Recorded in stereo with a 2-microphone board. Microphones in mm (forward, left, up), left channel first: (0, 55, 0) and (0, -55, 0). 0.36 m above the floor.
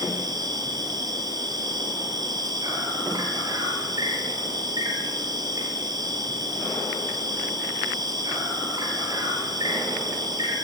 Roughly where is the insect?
Right.